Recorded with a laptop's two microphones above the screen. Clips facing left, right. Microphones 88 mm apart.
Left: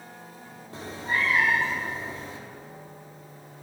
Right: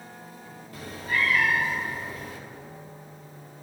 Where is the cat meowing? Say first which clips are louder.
Even; 25° left (ahead or behind), 0.6 m.